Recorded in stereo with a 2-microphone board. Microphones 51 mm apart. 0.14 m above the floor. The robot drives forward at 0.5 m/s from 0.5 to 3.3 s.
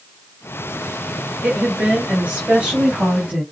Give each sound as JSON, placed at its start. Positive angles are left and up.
{"t": 1.4, "sound": "a woman speaking", "side_deg": -30, "distance_m": 2.0}